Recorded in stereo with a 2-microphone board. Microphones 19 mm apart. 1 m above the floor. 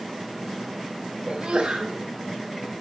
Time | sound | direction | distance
1.3 | a sneeze | 80° right | 3.5 m